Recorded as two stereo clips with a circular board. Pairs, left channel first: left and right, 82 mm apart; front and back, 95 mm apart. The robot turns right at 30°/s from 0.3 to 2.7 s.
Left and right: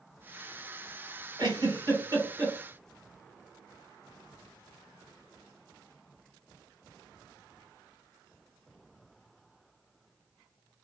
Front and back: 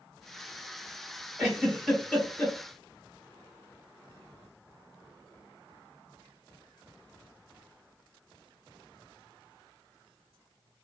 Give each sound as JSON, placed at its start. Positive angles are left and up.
{"t": 1.4, "sound": "a giggle", "azimuth_deg": -90, "distance_m": 1.6}